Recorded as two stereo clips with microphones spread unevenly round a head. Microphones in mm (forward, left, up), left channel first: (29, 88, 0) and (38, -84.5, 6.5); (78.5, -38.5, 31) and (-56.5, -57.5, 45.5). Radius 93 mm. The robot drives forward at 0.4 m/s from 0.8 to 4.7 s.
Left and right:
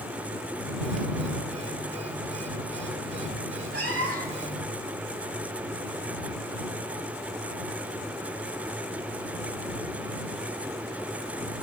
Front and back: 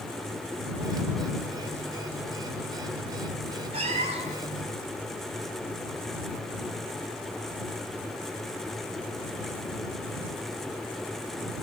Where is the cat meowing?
130° right, 2.5 m; by 4.5 s 135° right, 2.5 m.